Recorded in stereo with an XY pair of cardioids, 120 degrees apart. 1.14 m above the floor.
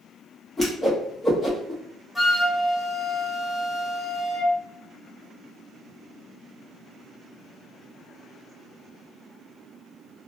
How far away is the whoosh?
About 1.0 m.